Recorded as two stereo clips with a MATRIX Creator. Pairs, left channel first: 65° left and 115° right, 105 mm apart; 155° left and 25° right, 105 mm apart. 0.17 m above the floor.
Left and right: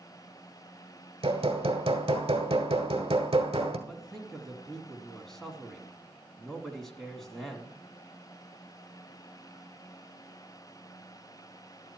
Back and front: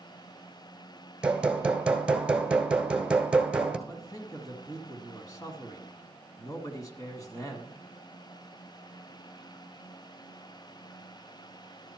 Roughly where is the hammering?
Right.